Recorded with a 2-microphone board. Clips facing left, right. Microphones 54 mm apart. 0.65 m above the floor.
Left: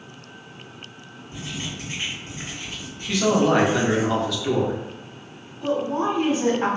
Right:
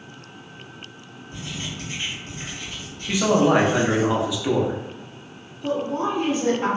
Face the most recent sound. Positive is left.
turn(degrees=70)  # may be behind; listen again after turning